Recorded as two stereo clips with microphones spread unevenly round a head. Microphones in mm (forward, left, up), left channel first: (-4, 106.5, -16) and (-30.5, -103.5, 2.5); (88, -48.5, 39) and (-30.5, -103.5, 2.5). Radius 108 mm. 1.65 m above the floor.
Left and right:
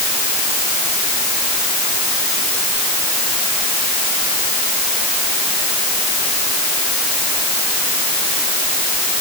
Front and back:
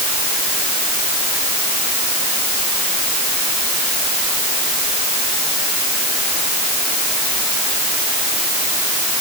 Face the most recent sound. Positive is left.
No sound to turn to.